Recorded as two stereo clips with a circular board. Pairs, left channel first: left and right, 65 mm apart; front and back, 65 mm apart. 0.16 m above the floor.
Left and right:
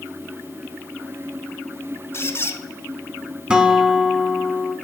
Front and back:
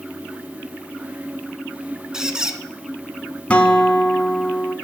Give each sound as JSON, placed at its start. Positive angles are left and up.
{"t": 2.1, "sound": "a squeak", "azimuth_deg": 105, "distance_m": 0.6}
{"t": 3.5, "sound": "a guitar", "azimuth_deg": -40, "distance_m": 0.7}